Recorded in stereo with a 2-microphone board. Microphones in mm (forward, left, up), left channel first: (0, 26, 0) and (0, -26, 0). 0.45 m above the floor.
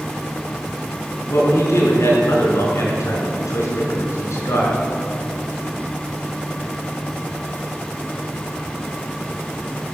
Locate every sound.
1.3 s a man speaking: 75° left (ahead or behind), 5 m